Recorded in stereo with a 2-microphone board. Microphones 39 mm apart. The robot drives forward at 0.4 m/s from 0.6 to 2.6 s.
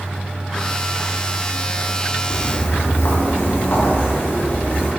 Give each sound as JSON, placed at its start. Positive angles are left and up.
{"t": 2.3, "sound": "footsteps", "side_deg": 80, "distance_m": 2.0}